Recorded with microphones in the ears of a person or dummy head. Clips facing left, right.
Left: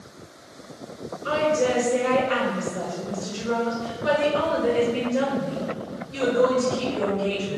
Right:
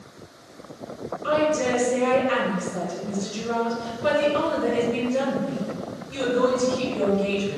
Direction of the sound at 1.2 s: 70° right (ahead or behind).